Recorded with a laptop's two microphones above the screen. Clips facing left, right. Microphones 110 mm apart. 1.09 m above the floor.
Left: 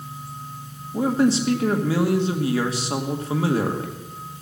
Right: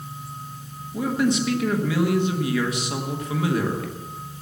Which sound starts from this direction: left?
A man speaking, at 0.9 s.